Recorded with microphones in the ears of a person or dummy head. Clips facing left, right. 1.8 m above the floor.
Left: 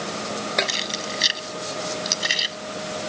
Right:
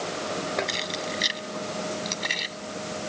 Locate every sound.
0.7 s keys jangling: centre (ahead or behind); by 2.5 s 10° left (ahead or behind)